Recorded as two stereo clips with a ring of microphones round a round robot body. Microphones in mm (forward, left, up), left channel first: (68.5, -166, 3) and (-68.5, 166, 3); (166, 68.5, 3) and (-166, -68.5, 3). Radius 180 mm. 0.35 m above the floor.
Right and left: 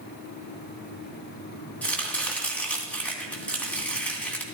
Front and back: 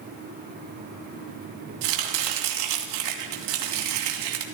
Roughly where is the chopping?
Behind right.